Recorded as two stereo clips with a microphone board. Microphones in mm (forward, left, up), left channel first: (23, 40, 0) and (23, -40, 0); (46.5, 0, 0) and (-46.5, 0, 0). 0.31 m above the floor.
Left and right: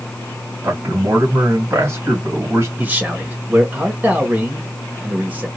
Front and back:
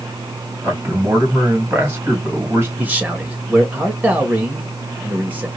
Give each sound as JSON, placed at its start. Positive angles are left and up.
{"t": 0.6, "sound": "a man speaking", "azimuth_deg": -125, "distance_m": 2.0}
{"t": 2.8, "sound": "a man speaking", "azimuth_deg": -130, "distance_m": 1.1}